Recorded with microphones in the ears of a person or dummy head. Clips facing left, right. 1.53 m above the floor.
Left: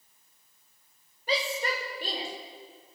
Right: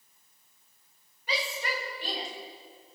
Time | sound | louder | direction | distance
1.3 | a shout | left 4 dB | 40° left (ahead or behind) | 7.5 m